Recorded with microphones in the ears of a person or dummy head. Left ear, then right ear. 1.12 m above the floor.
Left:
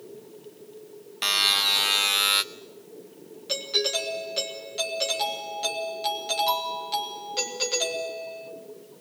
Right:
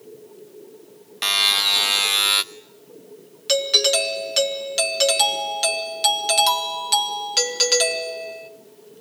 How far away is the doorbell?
About 1.6 m.